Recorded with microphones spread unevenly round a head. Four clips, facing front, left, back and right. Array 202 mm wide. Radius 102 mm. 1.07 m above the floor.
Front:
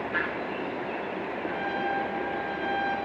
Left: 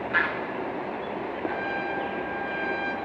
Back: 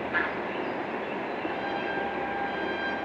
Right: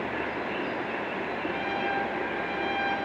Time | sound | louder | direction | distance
1.4 | a trumpet | left 1 dB, front 4 dB | 130° left | 6.5 m